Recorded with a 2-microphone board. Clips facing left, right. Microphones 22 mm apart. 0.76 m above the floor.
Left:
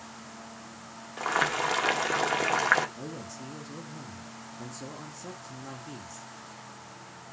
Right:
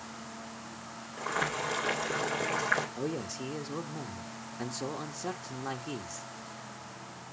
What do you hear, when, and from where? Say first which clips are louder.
1.2 s boiling: left 5 dB; 45° left (ahead or behind), 2 m
3.0 s a man speaking: right 5 dB; 35° right (ahead or behind), 1.3 m